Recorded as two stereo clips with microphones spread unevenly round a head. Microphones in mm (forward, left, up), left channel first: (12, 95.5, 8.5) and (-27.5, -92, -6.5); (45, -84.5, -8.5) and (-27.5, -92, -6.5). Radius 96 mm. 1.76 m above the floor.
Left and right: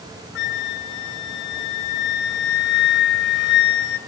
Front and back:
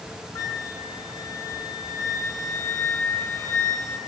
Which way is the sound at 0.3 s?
70° left.